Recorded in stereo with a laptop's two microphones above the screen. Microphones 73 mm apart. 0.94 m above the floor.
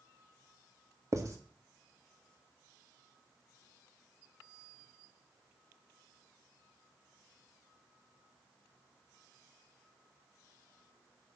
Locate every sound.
1.1 s writing: 45° right (ahead or behind), 1.7 m